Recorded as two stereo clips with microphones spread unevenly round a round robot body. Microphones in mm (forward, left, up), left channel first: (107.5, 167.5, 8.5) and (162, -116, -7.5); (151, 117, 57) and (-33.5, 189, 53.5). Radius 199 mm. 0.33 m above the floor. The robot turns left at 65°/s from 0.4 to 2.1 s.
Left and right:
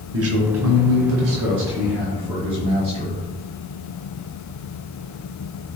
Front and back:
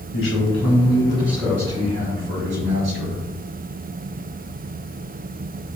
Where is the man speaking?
45° right, 4 m; by 3.2 s 155° right, 4 m.